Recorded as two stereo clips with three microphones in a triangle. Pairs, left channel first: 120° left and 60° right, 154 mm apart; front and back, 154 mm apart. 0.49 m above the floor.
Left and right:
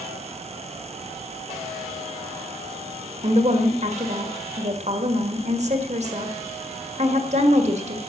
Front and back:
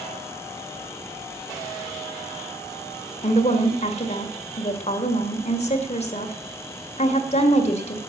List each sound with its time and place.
3.2 s a woman speaking: 30° right, 1.9 m